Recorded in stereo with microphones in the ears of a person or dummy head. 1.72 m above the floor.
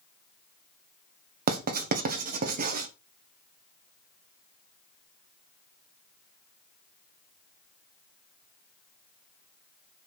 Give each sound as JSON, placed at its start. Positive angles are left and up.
{"t": 1.5, "sound": "writing", "side_deg": -50, "distance_m": 1.3}